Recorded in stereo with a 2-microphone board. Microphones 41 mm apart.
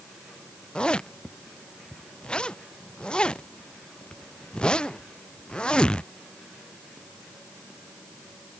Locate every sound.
0.8 s a zipper: 25° left (ahead or behind)